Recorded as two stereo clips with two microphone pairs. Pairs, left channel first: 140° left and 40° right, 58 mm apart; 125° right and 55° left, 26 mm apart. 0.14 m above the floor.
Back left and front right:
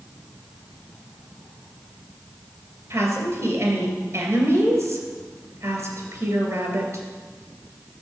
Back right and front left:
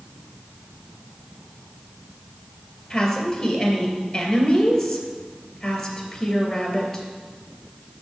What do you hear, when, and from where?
2.9 s a woman speaking: 55° right, 2.5 m